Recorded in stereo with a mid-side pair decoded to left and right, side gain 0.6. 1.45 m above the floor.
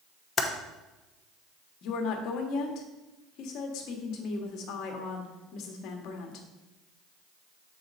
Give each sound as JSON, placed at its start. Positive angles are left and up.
{"t": 0.4, "sound": "typing on a keyboard", "azimuth_deg": 25, "distance_m": 0.9}
{"t": 1.8, "sound": "a woman speaking", "azimuth_deg": 65, "distance_m": 1.2}